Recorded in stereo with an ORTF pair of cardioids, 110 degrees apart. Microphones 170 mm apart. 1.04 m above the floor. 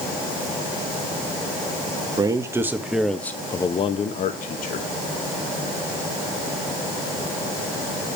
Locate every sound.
2.2 s a man speaking: 25° right, 1.1 m; by 4.9 s 65° left, 1.1 m